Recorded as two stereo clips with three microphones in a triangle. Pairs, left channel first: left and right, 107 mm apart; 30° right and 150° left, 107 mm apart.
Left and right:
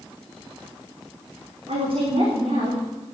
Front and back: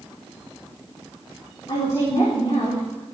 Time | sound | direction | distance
1.7 | a woman speaking | 80° right | 6.5 m